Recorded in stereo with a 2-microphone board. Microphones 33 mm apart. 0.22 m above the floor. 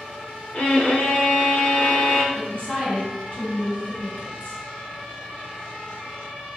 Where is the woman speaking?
40° left (ahead or behind), 2.0 m.